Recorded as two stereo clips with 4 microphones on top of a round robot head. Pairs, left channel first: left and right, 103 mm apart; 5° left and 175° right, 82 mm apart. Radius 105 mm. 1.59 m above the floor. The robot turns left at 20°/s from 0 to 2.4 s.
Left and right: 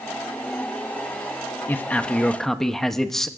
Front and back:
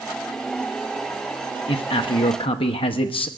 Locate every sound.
1.7 s a man speaking: 20° left, 0.9 m; by 3.3 s 5° left, 0.9 m